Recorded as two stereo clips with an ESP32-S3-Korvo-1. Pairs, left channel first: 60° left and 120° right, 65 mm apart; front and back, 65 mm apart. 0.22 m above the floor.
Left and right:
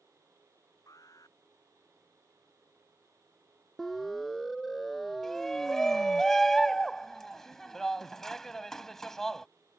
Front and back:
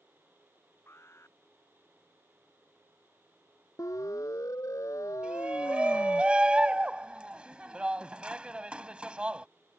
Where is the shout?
135° left.